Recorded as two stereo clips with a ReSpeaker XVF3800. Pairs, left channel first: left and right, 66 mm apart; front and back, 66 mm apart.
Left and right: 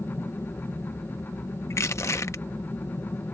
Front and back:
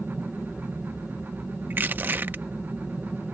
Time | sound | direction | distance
0.0 | an aircraft | 100° left | ?
1.7 | crushing | 125° left | ?